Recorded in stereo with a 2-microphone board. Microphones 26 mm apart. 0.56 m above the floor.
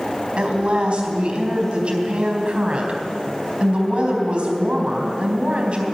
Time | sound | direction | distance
0.4 | a woman speaking | 40° right (ahead or behind) | 3.5 m